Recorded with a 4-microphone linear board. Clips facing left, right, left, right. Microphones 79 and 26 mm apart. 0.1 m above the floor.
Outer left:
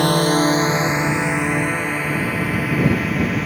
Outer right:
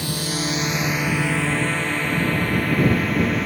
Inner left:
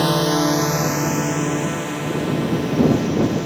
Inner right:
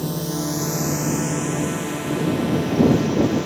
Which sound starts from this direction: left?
A drone, at 0.0 s.